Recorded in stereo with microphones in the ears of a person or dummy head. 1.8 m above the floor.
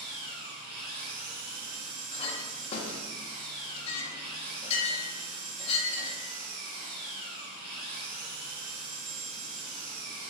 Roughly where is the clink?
Left.